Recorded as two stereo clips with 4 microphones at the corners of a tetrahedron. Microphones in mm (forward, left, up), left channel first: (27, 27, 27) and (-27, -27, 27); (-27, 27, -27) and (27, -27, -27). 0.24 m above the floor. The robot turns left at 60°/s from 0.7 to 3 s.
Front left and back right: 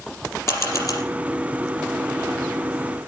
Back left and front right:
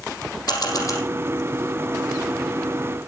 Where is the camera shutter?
100° left, 4.5 m; by 1.0 s 80° left, 4.5 m.